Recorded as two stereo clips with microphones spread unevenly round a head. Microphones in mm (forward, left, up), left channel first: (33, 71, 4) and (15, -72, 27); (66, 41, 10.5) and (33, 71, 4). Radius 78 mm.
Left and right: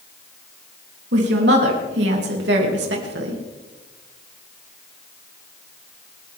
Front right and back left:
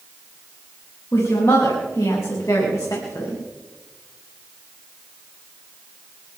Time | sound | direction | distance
1.1 | a woman speaking | 95° right | 3.5 m